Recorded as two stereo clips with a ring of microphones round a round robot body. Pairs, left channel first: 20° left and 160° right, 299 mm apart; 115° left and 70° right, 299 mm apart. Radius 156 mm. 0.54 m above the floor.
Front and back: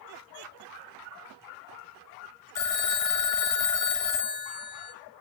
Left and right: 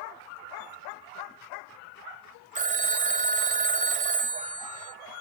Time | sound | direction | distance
2.5 | a phone ringing | straight ahead | 2.5 m